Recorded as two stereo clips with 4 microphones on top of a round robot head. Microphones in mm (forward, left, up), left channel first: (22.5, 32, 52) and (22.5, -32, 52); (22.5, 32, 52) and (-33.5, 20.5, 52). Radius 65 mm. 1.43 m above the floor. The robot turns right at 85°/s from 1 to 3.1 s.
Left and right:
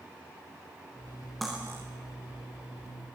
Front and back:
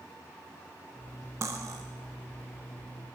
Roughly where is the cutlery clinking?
Behind.